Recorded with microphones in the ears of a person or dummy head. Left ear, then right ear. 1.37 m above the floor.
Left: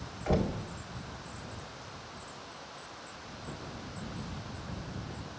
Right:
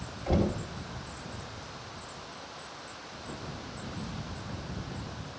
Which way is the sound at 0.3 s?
30° left (ahead or behind).